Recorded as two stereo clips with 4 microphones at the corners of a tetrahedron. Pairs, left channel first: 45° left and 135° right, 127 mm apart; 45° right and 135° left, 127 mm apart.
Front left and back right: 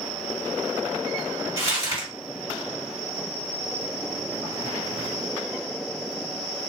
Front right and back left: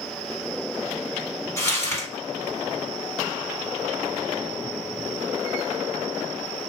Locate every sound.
1.6 s crumpling: 90° right, 1.9 m